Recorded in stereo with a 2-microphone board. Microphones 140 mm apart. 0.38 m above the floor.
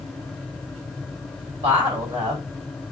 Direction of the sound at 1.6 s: 40° right (ahead or behind).